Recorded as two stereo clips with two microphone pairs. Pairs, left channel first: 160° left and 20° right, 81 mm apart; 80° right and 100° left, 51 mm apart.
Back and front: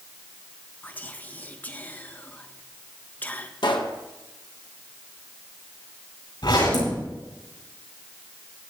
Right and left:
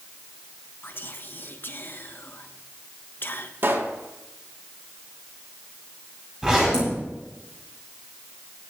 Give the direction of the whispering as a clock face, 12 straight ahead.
4 o'clock.